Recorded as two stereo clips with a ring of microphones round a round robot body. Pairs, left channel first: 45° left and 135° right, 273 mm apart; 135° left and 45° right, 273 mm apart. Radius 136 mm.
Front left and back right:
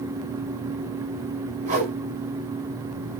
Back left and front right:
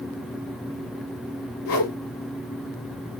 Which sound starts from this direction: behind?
A whoosh, at 1.6 s.